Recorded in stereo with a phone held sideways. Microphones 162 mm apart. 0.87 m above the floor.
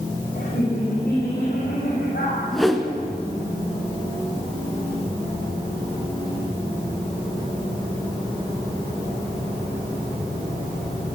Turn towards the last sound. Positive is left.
turn(degrees=0)  # may be behind; listen again after turning